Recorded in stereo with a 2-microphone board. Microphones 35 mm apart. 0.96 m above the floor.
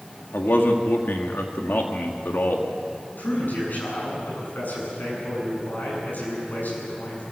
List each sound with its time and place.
0.3 s a man speaking: 70° left (ahead or behind), 1.9 m
3.2 s a man speaking: 60° left (ahead or behind), 9 m